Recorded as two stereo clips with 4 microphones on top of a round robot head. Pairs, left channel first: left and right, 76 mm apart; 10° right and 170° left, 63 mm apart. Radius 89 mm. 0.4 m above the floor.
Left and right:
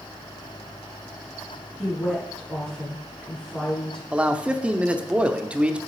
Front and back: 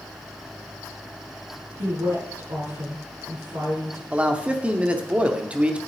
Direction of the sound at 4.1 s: 145° right.